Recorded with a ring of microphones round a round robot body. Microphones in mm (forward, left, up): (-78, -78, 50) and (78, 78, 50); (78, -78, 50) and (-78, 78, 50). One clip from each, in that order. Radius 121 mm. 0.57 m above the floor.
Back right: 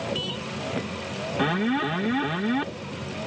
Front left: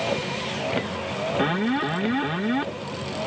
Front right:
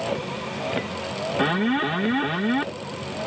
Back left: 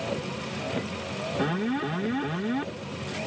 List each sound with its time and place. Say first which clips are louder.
0.0 s a vehicle: front left 3 dB, front right 4 dB; 5° right
1.4 s an alarm: back right 1 dB, front right 7 dB; 45° right